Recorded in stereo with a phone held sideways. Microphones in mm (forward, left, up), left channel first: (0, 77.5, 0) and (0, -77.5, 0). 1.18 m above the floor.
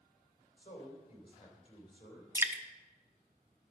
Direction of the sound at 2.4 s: 15° right (ahead or behind).